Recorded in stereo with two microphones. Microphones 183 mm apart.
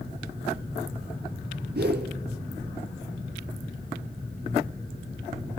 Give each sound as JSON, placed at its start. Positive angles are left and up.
{"t": 1.8, "sound": "a whoosh", "side_deg": -65, "distance_m": 0.9}